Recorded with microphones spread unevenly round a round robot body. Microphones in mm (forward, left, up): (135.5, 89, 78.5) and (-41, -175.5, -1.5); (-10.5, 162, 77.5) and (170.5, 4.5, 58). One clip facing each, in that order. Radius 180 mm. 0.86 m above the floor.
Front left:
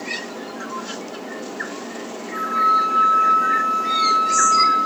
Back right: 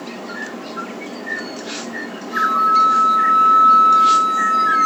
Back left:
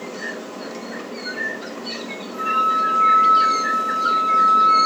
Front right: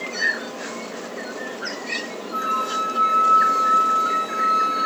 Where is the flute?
70° right, 2.5 m.